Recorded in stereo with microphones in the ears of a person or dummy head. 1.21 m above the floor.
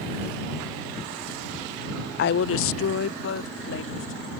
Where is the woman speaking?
55° left (ahead or behind); by 4.3 s 65° left (ahead or behind).